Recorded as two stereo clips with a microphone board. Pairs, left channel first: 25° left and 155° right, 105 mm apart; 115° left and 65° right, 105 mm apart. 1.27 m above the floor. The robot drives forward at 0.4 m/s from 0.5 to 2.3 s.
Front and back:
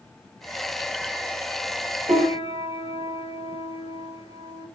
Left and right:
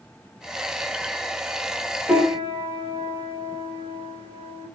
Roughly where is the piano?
Behind.